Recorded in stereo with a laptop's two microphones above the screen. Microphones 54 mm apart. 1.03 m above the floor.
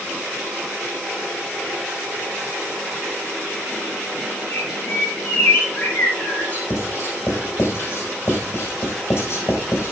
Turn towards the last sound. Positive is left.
turn(degrees=50)  # may be behind; listen again after turning